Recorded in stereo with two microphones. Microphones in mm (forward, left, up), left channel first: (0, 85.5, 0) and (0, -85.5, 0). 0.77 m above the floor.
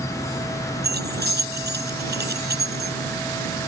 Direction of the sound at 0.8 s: 75° right (ahead or behind).